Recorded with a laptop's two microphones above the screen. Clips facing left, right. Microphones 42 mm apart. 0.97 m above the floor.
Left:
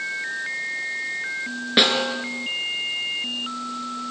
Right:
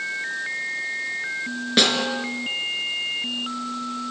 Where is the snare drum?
15° left (ahead or behind), 4 m.